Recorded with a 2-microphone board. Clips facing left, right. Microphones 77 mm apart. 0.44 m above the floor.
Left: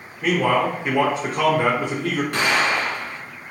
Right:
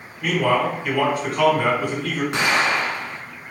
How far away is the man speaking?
About 1.0 m.